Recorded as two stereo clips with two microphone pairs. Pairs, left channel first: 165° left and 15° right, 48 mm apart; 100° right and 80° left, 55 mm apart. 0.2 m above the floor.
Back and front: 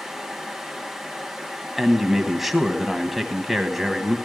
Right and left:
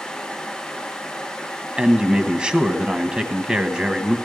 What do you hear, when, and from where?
1.8 s a man speaking: 65° left, 1.0 m